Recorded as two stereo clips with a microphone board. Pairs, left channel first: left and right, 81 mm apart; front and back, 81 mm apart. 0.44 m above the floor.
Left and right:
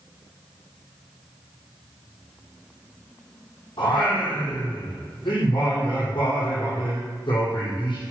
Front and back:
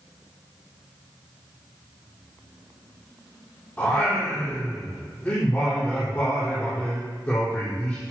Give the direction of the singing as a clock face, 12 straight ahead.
10 o'clock.